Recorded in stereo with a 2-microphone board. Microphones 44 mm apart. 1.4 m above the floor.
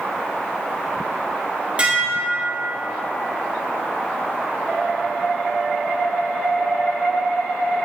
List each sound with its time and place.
1.8 s dishes clattering: 25° right (ahead or behind), 2.5 m